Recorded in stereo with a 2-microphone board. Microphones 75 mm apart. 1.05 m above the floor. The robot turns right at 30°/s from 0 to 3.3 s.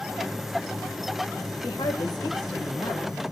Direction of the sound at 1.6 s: 75° left.